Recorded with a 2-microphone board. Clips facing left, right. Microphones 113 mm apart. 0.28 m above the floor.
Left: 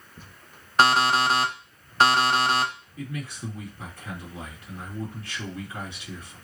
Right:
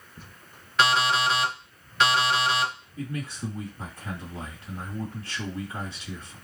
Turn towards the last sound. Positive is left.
turn(degrees=-35)  # may be behind; listen again after turning